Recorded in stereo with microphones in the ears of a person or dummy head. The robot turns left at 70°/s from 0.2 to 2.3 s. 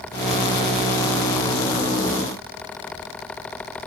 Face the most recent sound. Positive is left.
No sound to turn to.